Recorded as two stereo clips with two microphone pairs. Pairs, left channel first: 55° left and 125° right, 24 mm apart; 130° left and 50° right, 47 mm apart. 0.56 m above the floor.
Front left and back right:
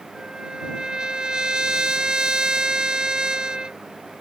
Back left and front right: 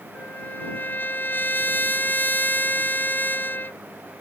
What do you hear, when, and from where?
0.1 s a trumpet: straight behind